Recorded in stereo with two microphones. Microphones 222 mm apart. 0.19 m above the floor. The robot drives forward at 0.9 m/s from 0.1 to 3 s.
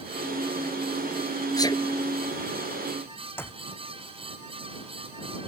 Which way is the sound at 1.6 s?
15° left (ahead or behind).